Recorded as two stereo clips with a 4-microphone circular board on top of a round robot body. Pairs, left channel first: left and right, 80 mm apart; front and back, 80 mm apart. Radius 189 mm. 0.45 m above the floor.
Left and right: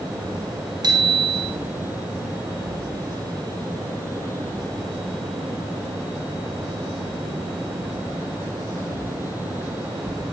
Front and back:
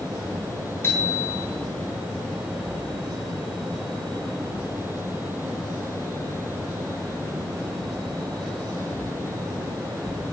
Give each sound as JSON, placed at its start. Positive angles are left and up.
{"t": 0.8, "sound": "a bicycle bell", "azimuth_deg": -60, "distance_m": 4.0}